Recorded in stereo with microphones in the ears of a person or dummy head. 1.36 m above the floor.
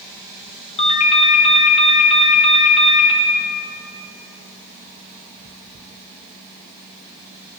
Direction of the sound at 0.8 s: 35° left (ahead or behind).